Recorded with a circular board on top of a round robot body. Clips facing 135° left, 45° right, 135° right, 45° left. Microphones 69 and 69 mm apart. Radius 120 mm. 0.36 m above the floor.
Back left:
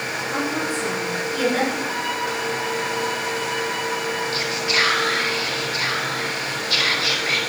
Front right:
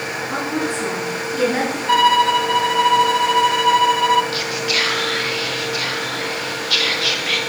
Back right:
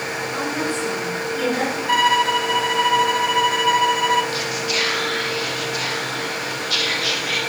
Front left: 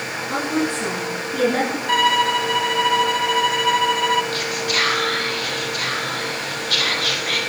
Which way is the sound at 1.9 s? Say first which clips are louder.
Front right 11 dB, back right 1 dB; 50° right.